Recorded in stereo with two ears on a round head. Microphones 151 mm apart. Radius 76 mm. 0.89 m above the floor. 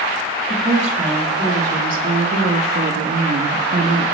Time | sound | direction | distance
0.5 | a woman speaking | 30° right (ahead or behind) | 2 m